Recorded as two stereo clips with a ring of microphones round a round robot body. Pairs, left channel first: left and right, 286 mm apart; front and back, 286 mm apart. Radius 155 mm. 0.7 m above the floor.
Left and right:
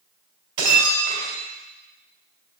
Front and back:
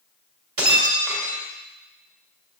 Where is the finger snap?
No finger snap in this recording.